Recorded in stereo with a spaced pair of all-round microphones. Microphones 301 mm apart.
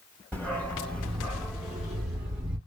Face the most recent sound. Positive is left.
turn(degrees=-5)  # may be behind; listen again after turning